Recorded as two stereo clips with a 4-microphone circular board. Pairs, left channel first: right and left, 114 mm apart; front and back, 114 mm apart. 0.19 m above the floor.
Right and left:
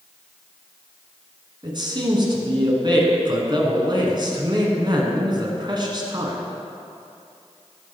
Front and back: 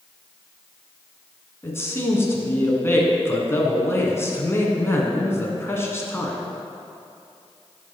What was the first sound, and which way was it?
A man speaking, 60° left.